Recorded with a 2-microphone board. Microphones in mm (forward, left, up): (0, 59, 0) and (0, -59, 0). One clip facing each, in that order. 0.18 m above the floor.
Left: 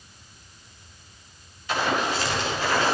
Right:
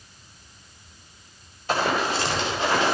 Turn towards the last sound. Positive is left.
turn(degrees=-20)  # may be behind; listen again after turning